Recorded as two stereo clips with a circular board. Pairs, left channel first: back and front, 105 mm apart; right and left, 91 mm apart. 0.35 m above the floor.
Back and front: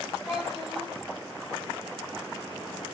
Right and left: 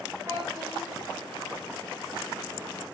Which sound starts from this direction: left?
A child speaking, at 0.3 s.